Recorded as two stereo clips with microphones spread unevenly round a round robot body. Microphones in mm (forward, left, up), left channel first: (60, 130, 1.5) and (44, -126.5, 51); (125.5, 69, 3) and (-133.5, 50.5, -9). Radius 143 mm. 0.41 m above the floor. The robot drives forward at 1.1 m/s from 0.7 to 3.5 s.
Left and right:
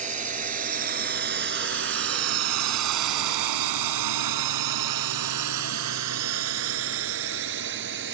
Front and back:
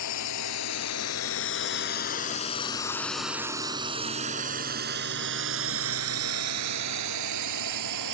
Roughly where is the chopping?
No chopping in this recording.